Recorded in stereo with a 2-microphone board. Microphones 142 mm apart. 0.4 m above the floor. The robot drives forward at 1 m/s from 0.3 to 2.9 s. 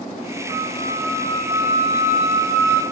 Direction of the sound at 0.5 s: 35° right (ahead or behind).